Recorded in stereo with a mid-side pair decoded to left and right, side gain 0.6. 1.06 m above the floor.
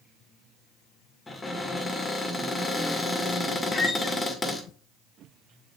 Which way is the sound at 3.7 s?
25° left.